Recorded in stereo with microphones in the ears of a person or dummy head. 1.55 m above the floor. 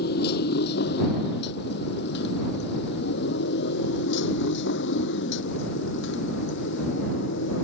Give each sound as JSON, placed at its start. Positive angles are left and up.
{"t": 0.0, "sound": "a motorcycle", "side_deg": 65}